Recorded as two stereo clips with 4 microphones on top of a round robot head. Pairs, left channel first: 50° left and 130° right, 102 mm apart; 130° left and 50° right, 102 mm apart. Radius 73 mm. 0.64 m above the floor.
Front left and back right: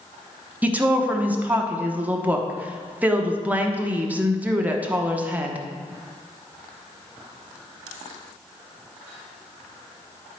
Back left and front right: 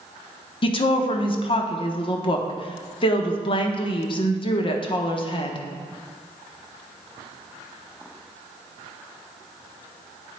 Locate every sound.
0.6 s a woman speaking: 155° left, 1.0 m